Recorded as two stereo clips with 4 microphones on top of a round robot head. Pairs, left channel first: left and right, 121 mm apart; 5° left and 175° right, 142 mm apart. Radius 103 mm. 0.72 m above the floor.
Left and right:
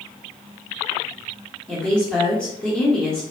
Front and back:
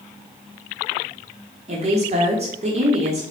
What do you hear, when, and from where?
1.7 s a woman speaking: 170° left, 1.0 m